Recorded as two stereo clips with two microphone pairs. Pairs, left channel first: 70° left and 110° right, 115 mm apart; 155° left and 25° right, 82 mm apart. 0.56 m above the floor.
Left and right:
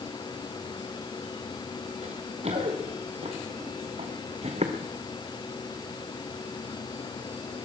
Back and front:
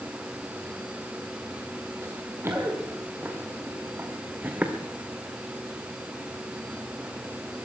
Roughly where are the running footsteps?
Right.